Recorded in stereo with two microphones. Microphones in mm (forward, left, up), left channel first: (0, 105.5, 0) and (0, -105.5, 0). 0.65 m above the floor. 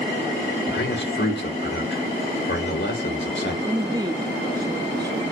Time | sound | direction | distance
0.7 | a man speaking | 60° left (ahead or behind) | 2 m
3.6 | a woman speaking | 15° right (ahead or behind) | 0.7 m